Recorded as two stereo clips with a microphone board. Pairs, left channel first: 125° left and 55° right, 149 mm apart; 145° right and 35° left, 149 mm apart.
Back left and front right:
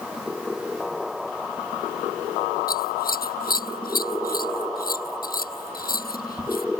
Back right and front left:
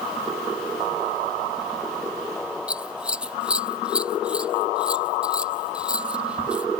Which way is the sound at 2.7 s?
115° left.